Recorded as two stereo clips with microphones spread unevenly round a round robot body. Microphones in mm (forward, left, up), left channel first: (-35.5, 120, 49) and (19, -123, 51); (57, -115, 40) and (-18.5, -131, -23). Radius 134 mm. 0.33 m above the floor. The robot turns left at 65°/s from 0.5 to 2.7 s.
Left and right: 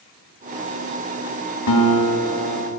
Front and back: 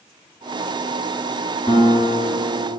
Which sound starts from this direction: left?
A guitar, at 1.7 s.